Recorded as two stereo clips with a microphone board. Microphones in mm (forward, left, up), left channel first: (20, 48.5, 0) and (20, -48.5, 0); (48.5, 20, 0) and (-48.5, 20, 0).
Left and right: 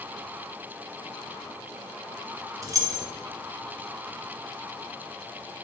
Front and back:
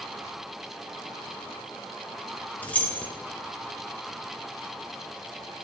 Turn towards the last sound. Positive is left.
turn(degrees=-65)